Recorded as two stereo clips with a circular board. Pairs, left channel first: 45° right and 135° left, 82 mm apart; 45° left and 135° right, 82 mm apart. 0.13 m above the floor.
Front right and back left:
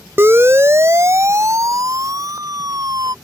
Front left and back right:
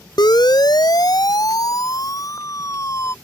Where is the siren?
75° left; by 3.1 s 95° left.